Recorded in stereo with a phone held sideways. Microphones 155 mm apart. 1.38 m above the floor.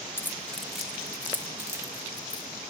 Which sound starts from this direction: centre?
Keys jangling, at 0.2 s.